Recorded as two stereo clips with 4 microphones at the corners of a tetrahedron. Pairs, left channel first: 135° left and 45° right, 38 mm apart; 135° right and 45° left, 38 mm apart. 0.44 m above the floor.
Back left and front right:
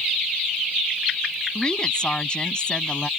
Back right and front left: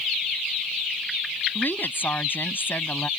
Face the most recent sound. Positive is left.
turn(degrees=-160)